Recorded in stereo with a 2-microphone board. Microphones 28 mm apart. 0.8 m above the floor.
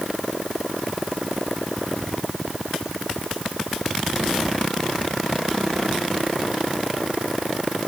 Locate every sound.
Only background noise.